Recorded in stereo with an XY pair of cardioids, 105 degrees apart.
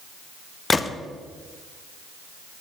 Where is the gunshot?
25° left, 0.5 m.